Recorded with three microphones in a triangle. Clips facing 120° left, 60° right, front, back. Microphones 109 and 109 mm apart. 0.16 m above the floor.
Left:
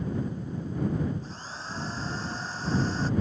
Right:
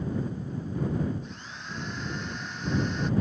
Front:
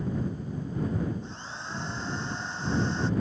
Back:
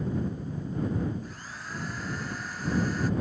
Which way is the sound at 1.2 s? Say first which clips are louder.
Left 2 dB, front 2 dB; 65° left.